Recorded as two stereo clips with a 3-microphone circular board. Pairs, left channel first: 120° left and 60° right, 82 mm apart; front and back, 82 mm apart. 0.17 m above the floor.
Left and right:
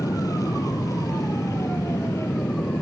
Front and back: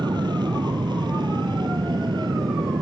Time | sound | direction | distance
0.0 | an aircraft | 160° left | ?